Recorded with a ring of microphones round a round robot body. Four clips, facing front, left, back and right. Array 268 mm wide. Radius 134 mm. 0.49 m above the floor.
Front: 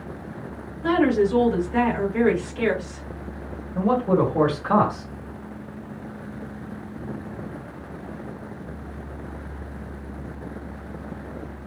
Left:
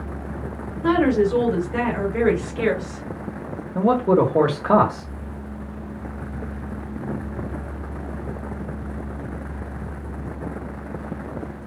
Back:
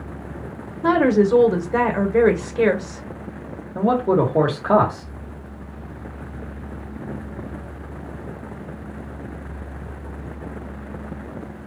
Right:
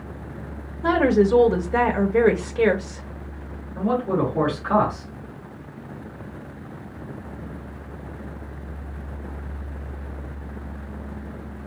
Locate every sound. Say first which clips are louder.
0.8 s a woman speaking: even, back 3 dB; 150° right, 1.8 m
3.8 s a man speaking: left 5 dB, back 2 dB; 125° left, 1.8 m